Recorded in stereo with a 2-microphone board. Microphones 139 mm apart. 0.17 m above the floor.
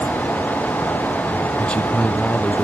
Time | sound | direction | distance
1.6 | a man speaking | 10° left (ahead or behind) | ?